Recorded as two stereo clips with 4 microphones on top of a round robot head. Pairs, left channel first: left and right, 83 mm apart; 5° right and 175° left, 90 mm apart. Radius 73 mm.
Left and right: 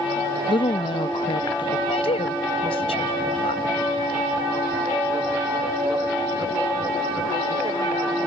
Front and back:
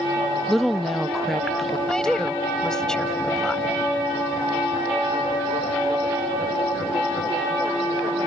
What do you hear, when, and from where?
0.5 s a woman speaking: 85° left
1.9 s a woman speaking: 80° left